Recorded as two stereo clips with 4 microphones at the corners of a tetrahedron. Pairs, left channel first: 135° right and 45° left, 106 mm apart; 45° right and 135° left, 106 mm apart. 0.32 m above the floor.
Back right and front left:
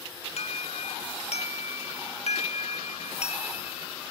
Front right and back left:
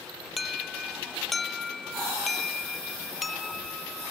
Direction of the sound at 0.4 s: 135° right.